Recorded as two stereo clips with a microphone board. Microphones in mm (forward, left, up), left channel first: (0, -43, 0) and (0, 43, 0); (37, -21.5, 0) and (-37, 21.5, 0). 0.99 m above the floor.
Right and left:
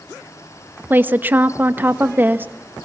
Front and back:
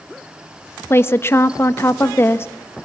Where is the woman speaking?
25° left, 1.0 m.